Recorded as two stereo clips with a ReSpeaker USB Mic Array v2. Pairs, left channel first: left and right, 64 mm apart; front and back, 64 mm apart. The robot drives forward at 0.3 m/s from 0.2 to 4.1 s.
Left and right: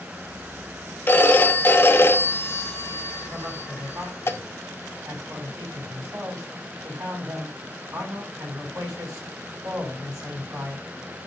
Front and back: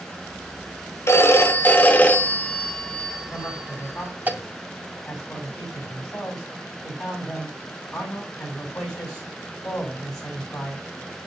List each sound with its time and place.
1.1 s a phone ringing: 40° left, 0.9 m; by 4.3 s 120° left, 0.7 m
3.3 s a man speaking: 70° right, 4.5 m; by 10.8 s 75° right, 4.5 m